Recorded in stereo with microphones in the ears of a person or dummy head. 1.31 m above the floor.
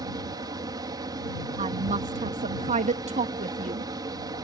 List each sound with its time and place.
0.0 s a fan: 20° right (ahead or behind)
1.6 s a woman speaking: 35° right (ahead or behind)